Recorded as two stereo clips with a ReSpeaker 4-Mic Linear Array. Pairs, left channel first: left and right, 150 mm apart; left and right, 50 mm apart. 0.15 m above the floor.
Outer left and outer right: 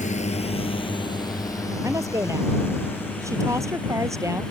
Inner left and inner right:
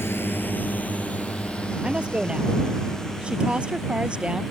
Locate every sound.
0.0 s a drone: 55° left (ahead or behind); by 4.5 s 10° left (ahead or behind)
1.8 s a woman speaking: 20° right (ahead or behind)